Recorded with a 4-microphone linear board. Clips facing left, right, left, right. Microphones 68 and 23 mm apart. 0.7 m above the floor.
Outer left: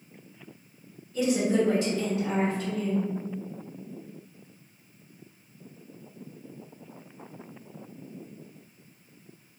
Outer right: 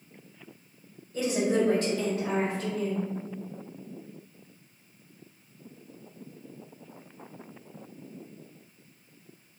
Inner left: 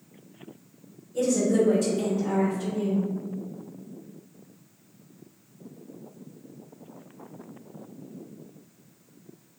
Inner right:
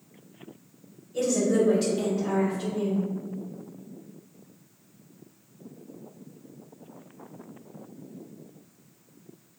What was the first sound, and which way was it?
A woman speaking, 40° right (ahead or behind).